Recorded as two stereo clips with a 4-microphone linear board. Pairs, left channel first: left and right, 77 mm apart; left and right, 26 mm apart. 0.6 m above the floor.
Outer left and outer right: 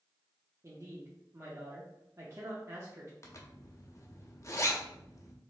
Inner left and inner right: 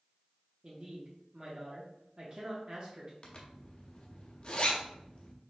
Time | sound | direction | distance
0.6 | a woman speaking | 35° right (ahead or behind) | 0.8 m
3.2 | a zipper | 40° left (ahead or behind) | 0.7 m